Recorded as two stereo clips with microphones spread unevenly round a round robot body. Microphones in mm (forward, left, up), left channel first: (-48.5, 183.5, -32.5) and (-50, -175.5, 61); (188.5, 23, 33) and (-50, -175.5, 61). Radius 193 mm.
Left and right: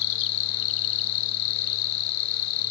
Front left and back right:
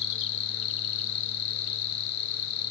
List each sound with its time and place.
0.0 s an insect: 95° left, 0.8 m